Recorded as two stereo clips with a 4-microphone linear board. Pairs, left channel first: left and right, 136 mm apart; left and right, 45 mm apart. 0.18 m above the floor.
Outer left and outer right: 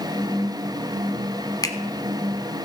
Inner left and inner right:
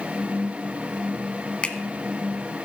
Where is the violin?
I don't hear a violin.